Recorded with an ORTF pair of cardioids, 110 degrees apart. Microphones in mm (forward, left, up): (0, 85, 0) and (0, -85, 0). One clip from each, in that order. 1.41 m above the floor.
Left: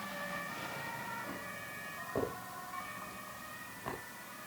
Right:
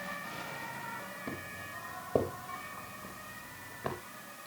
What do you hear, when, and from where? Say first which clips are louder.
1.3 s footsteps: right 1 dB; 70° right, 9 m